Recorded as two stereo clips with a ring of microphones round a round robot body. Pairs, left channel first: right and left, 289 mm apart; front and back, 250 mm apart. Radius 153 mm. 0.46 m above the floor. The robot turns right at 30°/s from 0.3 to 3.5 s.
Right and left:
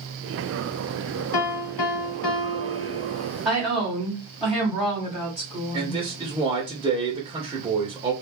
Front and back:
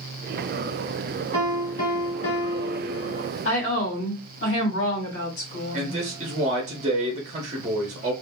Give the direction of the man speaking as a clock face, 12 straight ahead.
7 o'clock.